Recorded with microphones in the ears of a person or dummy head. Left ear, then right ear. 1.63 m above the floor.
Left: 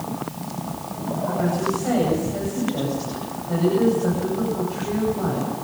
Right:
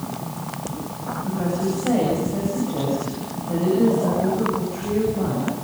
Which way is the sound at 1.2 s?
55° left (ahead or behind).